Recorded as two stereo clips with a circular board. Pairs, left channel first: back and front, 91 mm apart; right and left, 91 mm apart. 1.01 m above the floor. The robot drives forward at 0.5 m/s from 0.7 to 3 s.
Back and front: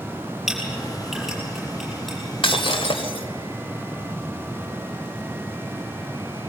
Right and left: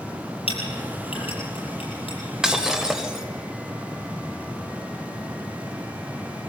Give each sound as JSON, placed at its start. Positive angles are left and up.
{"t": 0.5, "sound": "a clink", "azimuth_deg": -85, "distance_m": 9.5}
{"t": 2.4, "sound": "breaking glass", "azimuth_deg": 170, "distance_m": 1.7}